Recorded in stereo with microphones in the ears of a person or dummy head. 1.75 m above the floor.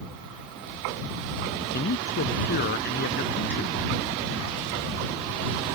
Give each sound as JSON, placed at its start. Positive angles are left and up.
{"t": 1.7, "sound": "a man speaking", "side_deg": 50}